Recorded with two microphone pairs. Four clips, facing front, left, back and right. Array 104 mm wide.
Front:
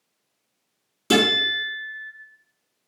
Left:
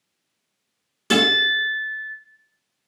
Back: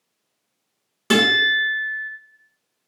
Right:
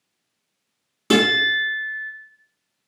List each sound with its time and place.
1.1 s a guitar: 155° right, 1.7 m